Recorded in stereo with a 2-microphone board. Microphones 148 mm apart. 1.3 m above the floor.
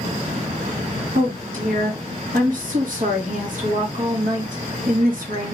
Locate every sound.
1.1 s a woman speaking: 60° right (ahead or behind), 1.6 m